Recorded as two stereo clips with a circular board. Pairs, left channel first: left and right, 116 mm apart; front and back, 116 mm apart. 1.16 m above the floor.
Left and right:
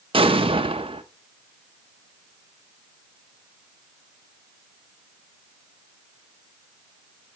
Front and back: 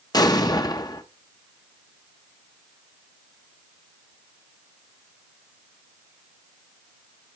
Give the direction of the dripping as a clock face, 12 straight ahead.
I don't hear dripping.